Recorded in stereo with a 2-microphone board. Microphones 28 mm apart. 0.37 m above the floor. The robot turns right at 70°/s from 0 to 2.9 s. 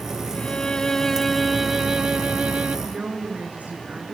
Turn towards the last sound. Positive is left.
turn(degrees=-65)  # may be behind; listen again after turning